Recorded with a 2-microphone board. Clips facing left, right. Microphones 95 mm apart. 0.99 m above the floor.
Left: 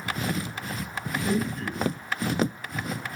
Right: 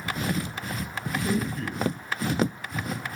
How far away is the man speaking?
About 9 m.